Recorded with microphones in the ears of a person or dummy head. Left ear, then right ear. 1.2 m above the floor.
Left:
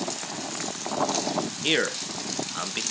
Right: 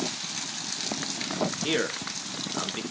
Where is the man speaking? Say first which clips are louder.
Left 7 dB; 30° left (ahead or behind), 1.8 m.